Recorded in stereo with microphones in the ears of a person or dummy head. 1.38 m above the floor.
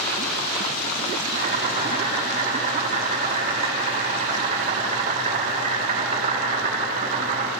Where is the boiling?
35° right (ahead or behind), 5.5 m.